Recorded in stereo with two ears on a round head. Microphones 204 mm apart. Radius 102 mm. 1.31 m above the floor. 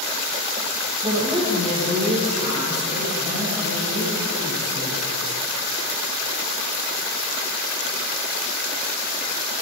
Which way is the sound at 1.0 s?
15° right (ahead or behind).